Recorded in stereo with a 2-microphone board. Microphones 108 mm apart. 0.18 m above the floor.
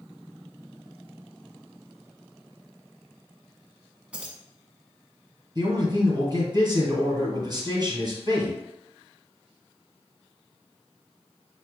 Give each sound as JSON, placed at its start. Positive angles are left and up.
{"t": 4.1, "sound": "keys jangling", "side_deg": -10, "distance_m": 0.9}
{"t": 5.5, "sound": "a man speaking", "side_deg": -35, "distance_m": 2.0}